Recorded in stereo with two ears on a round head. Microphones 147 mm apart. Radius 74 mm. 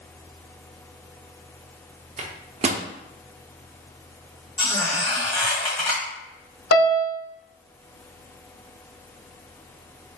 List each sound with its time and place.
2.2 s a microwave: 40° right (ahead or behind), 0.5 m
4.6 s a squeak: 10° left (ahead or behind), 2 m
6.7 s a piano: 65° left (ahead or behind), 0.7 m